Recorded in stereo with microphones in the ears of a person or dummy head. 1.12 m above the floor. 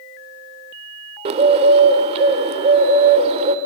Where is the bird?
35° right (ahead or behind), 1.0 m.